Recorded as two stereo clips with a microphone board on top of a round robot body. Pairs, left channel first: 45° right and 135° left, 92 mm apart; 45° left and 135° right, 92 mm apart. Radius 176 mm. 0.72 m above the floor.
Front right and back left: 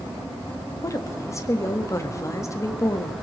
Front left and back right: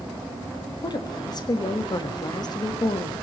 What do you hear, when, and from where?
0.8 s a woman speaking: 10° left, 1.6 m